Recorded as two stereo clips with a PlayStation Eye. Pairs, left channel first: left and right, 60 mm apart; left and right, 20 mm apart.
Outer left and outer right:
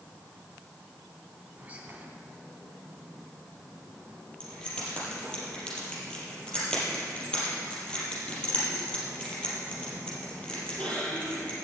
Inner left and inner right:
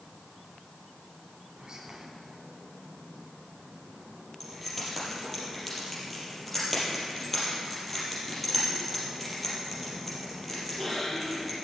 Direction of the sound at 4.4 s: 15° left (ahead or behind).